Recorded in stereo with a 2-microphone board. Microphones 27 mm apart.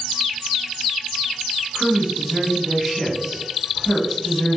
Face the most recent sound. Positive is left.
turn(degrees=-5)  # may be behind; listen again after turning